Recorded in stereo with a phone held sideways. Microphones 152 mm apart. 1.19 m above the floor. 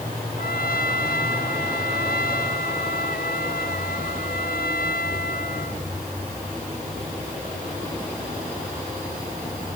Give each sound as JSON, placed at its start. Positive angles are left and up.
{"t": 0.4, "sound": "a trumpet", "side_deg": 80}